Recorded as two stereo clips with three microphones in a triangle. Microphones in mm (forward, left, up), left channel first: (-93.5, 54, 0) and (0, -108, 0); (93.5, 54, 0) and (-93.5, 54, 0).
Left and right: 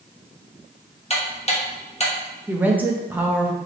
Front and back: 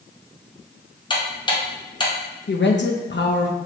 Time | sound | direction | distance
1.1 | ticking | 65° left | 1.0 m
2.5 | a woman speaking | 20° left | 0.8 m